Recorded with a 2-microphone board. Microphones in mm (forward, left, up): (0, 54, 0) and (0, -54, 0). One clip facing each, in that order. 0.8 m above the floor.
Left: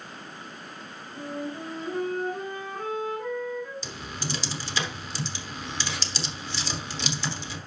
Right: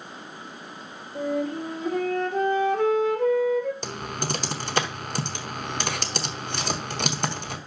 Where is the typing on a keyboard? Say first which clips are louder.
Right 6 dB; 55° right (ahead or behind), 1.0 m.